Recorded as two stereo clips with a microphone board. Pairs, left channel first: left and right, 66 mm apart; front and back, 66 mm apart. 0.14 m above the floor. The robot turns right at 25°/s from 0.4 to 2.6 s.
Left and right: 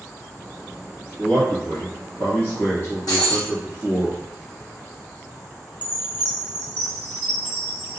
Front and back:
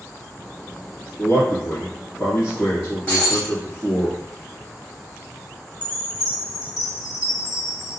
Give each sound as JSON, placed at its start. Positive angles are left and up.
{"t": 1.2, "sound": "a man speaking", "azimuth_deg": 25, "distance_m": 1.8}
{"t": 3.1, "sound": "breaking glass", "azimuth_deg": 75, "distance_m": 1.8}
{"t": 5.8, "sound": "a chime", "azimuth_deg": -135, "distance_m": 1.5}